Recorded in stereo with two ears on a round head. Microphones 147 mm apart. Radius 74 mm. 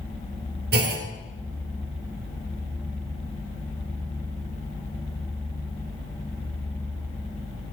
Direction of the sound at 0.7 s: 70° right (ahead or behind).